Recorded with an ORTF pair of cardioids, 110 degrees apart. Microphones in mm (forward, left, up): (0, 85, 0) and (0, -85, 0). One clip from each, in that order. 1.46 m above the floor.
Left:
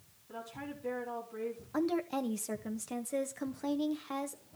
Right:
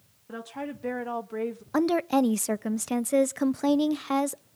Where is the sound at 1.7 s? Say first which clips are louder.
Right 10 dB; 50° right, 0.7 m.